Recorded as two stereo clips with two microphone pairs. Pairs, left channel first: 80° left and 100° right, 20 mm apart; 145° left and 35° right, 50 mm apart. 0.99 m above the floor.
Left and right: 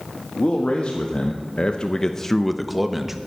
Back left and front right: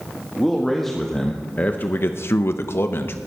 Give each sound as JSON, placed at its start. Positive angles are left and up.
{"t": 0.4, "sound": "a man speaking", "azimuth_deg": 50, "distance_m": 1.7}